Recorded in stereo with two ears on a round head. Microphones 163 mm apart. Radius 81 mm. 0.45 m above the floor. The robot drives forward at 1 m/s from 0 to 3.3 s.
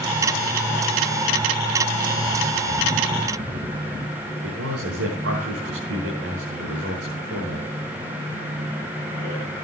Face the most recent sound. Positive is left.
turn(degrees=-75)  # may be behind; listen again after turning